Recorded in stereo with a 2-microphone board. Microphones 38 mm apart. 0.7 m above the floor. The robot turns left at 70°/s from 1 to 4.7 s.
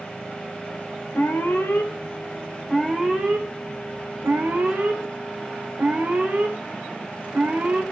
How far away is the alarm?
About 4 m.